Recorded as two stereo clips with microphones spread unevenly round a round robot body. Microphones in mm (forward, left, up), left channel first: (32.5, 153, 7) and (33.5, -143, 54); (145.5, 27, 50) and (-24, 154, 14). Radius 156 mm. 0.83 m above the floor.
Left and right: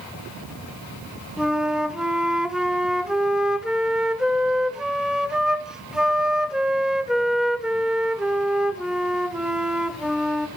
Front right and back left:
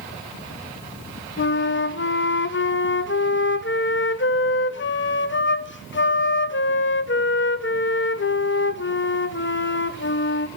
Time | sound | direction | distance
1.4 | a flute | straight ahead | 0.6 m